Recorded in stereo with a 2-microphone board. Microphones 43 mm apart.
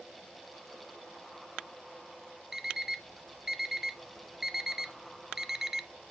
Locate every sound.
2.5 s an alarm clock: 10° right (ahead or behind), 0.5 m